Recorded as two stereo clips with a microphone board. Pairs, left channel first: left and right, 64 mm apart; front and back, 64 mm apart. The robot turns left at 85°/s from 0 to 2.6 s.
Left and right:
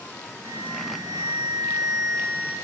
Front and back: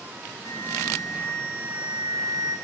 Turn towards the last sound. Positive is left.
turn(degrees=125)